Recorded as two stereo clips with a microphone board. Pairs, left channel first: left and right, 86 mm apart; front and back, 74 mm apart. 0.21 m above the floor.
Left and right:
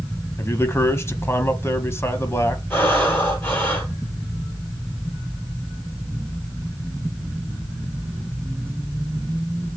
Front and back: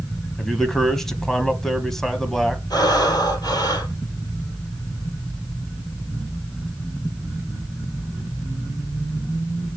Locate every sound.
0.4 s a man speaking: 80° left, 1.1 m
2.7 s breathing: 30° left, 2 m